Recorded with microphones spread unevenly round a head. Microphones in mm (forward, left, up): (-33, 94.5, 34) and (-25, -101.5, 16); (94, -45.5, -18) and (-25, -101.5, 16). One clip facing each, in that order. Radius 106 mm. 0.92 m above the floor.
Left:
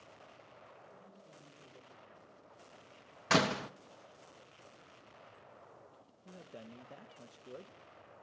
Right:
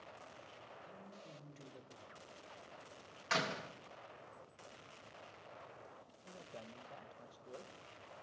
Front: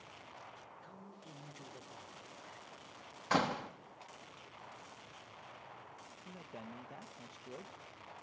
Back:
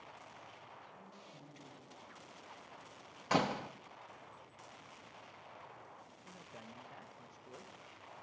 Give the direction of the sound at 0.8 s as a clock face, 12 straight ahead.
12 o'clock.